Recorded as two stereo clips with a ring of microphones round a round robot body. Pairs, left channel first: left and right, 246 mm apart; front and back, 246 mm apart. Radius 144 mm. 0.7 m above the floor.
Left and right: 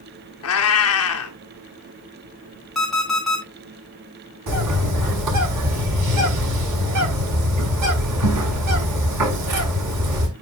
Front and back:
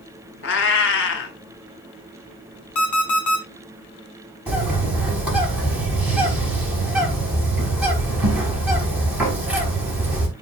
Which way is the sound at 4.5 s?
95° right.